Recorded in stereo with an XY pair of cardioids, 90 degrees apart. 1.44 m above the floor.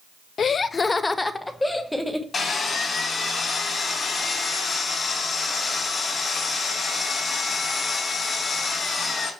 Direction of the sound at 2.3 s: 45° left.